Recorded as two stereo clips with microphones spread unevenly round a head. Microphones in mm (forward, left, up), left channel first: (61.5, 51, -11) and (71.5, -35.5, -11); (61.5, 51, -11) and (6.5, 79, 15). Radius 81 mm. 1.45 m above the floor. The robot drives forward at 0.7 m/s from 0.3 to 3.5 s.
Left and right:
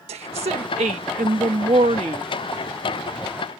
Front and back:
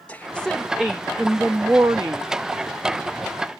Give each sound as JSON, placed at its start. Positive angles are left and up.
{"t": 0.1, "sound": "a woman speaking", "azimuth_deg": -110}